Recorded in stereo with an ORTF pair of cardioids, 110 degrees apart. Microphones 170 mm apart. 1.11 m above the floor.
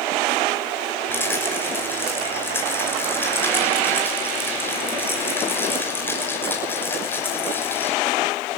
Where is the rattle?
15° left, 6 m.